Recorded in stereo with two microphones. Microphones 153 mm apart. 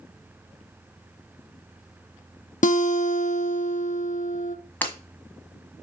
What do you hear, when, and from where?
2.6 s a guitar: 55° left (ahead or behind), 0.7 m
4.8 s breaking glass: 10° left (ahead or behind), 1.6 m